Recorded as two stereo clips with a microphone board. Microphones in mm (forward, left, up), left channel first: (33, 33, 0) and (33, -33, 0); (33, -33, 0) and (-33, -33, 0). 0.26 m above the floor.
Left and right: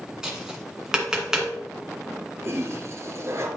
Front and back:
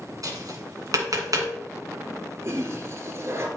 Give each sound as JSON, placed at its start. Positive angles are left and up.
{"t": 0.2, "sound": "tapping", "azimuth_deg": -170, "distance_m": 1.9}
{"t": 2.4, "sound": "a toilet flushing", "azimuth_deg": -135, "distance_m": 1.3}